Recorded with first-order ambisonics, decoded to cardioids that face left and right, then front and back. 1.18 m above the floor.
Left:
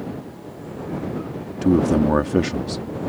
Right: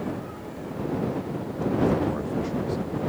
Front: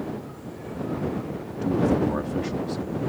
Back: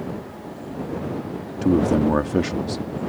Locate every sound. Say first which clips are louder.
1.6 s a man speaking: left 6 dB, back 4 dB; 120° left